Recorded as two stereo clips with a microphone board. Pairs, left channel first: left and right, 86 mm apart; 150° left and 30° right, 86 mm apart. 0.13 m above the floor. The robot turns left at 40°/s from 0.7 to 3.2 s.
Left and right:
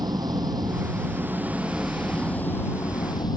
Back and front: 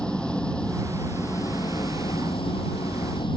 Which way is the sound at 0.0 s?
130° right.